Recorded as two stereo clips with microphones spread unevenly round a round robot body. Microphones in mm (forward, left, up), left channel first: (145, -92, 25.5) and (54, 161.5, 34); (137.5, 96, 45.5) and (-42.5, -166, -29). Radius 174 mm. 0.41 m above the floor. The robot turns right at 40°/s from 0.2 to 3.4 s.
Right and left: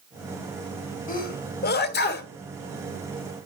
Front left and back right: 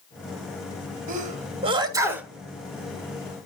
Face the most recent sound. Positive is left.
turn(degrees=-15)